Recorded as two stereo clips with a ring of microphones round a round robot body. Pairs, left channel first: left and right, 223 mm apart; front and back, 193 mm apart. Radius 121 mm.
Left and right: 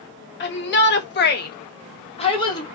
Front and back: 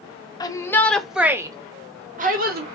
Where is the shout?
65° left, 1.0 m; by 2.8 s 160° left, 1.0 m.